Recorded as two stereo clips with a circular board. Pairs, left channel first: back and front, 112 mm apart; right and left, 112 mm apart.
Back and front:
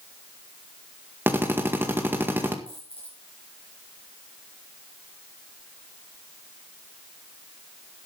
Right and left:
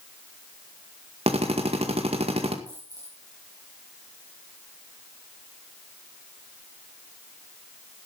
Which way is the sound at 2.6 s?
35° left.